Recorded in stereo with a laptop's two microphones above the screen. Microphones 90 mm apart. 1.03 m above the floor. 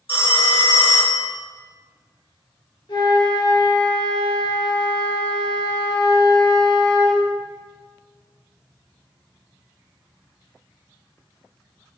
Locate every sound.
0.1 s a phone ringing: 75° left (ahead or behind), 1.0 m
2.9 s a flute: 70° left (ahead or behind), 1.5 m